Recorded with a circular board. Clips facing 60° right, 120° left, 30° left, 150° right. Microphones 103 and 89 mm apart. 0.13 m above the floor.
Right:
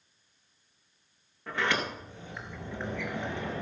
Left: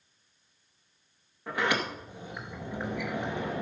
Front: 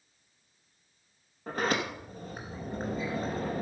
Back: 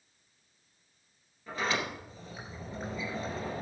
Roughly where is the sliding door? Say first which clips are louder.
Left 1 dB, front 3 dB; ahead left.